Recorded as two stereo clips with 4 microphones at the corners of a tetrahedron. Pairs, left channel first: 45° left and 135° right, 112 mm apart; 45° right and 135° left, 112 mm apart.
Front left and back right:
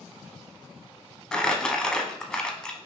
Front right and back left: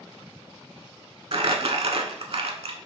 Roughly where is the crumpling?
Behind left.